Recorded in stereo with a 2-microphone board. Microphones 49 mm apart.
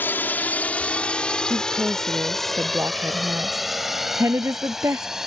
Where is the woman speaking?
75° right (ahead or behind).